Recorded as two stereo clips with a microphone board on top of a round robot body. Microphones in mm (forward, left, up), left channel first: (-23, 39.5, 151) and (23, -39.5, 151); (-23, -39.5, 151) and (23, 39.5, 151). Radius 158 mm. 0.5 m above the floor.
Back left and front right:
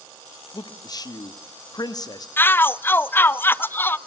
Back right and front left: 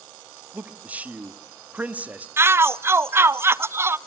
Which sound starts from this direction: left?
A shout, at 2.4 s.